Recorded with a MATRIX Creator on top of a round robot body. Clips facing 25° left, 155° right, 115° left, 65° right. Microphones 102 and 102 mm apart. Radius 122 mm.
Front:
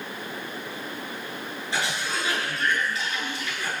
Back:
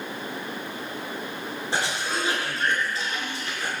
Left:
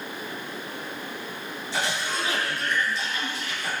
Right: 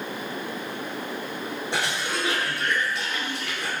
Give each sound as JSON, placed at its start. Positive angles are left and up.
{"t": 1.7, "sound": "a cough", "azimuth_deg": -100, "distance_m": 7.5}